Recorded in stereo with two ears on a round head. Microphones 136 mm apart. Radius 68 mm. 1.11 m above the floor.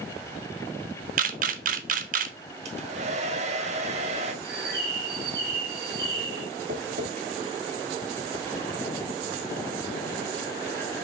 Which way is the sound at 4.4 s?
75° right (ahead or behind).